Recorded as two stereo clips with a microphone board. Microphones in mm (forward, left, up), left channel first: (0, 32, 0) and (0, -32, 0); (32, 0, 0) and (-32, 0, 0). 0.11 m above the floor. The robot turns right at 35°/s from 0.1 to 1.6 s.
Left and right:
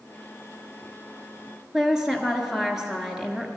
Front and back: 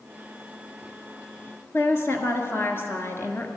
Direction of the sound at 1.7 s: 10° right.